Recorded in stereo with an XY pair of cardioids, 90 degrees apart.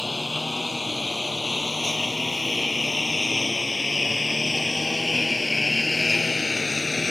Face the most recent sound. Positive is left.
turn(degrees=30)